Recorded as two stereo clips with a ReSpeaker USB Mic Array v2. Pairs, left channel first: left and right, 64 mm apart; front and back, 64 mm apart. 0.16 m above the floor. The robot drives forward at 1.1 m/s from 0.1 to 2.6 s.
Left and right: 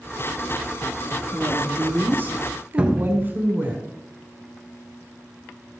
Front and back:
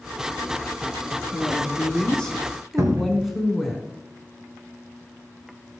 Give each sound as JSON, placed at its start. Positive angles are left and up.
{"t": 1.3, "sound": "a woman speaking", "azimuth_deg": -35, "distance_m": 2.0}
{"t": 2.8, "sound": "a cupboard door", "azimuth_deg": -160, "distance_m": 1.3}